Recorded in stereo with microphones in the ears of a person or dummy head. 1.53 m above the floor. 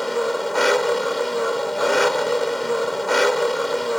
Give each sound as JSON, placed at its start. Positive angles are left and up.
{"t": 0.0, "sound": "an engine running", "side_deg": 0}